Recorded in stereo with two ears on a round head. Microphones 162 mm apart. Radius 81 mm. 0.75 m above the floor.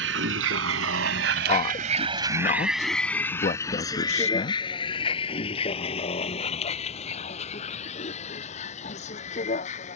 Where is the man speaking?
40° left (ahead or behind).